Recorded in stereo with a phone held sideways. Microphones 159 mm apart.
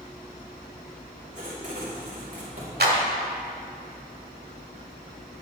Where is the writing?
50° right (ahead or behind), 4 m.